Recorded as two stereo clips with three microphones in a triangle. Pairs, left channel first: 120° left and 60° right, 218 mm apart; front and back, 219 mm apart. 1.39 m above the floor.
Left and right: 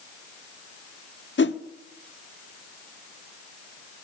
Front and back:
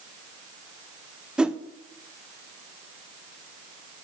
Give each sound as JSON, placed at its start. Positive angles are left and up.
{"t": 1.4, "sound": "a whoosh", "azimuth_deg": 95, "distance_m": 0.7}